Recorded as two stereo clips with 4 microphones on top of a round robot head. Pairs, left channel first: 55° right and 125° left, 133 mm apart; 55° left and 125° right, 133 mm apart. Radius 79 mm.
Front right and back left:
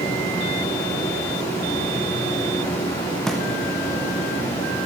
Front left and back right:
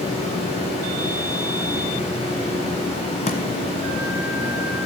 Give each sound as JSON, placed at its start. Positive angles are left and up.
{"t": 0.0, "sound": "running water", "azimuth_deg": 10, "distance_m": 5.0}
{"t": 3.3, "sound": "a thud", "azimuth_deg": 30, "distance_m": 1.1}